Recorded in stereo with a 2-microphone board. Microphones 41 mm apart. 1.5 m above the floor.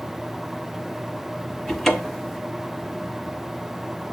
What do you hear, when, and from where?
1.7 s a cupboard door: 10° left (ahead or behind), 1.1 m